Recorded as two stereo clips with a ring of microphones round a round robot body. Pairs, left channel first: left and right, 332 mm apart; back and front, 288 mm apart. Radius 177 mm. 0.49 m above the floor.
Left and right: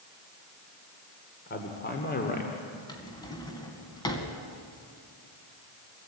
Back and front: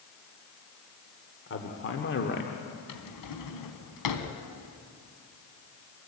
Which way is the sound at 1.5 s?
145° left.